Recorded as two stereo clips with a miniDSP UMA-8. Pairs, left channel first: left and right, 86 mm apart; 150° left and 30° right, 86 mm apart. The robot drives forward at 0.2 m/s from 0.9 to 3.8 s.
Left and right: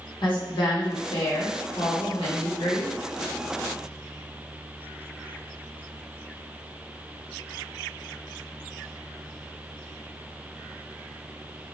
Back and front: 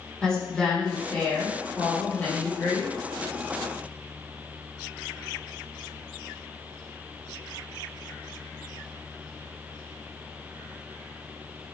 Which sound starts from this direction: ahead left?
A woman speaking, at 0.2 s.